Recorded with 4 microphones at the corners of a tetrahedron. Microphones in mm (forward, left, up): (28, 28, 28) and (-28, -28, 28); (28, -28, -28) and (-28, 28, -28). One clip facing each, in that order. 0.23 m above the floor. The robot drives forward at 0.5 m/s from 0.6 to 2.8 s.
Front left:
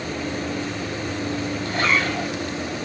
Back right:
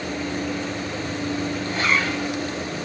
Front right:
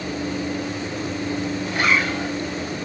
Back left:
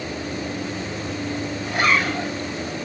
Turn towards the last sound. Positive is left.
turn(degrees=100)